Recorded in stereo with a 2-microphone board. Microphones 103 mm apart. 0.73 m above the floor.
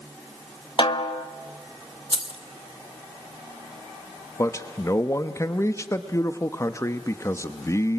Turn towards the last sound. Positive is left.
turn(degrees=30)  # may be behind; listen again after turning